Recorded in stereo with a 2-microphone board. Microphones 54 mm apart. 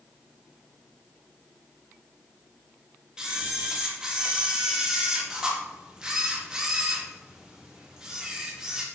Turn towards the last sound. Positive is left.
turn(degrees=-15)  # may be behind; listen again after turning